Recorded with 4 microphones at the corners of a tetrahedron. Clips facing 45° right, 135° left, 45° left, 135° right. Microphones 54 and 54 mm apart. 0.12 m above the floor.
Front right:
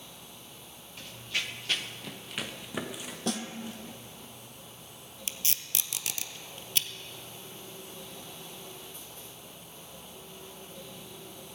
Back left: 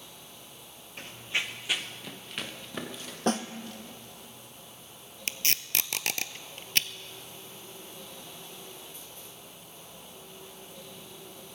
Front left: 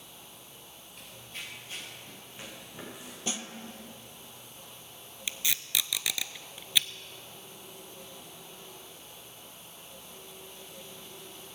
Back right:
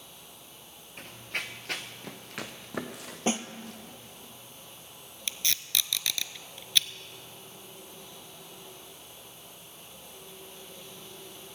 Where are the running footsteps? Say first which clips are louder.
Back left 2 dB, back right 8 dB; 175° right, 1.1 m; by 4.3 s 115° right, 3 m.